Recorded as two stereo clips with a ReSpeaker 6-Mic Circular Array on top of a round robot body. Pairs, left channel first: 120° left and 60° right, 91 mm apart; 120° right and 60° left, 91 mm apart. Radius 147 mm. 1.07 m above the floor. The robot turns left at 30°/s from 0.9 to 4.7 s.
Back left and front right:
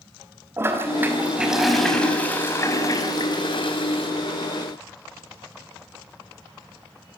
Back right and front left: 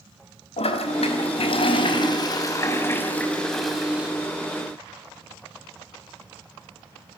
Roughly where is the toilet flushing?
Behind right.